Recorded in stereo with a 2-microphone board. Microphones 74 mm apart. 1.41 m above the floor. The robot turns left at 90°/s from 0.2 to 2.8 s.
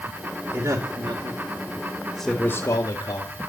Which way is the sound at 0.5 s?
30° right (ahead or behind).